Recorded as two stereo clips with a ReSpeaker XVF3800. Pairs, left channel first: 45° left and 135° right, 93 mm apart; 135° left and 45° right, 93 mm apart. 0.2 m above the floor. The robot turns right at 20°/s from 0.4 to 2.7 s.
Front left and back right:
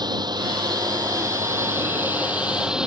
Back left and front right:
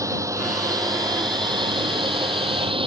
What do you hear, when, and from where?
0.0 s a drone: 100° right; by 2.9 s 55° right